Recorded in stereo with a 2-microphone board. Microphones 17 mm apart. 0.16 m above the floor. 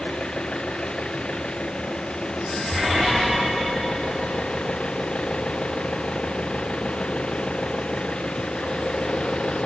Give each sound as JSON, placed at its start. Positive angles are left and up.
{"t": 0.0, "sound": "an engine running", "side_deg": 80}